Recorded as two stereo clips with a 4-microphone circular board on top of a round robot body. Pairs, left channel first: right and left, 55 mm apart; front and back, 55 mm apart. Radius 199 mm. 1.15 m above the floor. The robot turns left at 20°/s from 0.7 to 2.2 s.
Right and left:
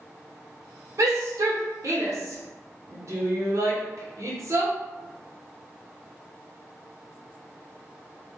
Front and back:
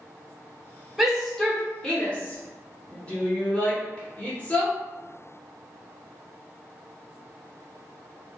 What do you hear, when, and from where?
1.0 s a shout: 95° left, 1.3 m; by 4.7 s 70° left, 1.3 m